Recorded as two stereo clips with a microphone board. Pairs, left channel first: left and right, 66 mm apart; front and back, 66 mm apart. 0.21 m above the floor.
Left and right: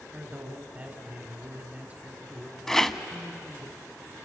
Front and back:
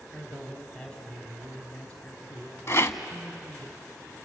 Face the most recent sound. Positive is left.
turn(degrees=10)